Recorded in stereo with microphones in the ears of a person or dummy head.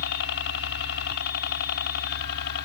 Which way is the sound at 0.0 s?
55° left (ahead or behind).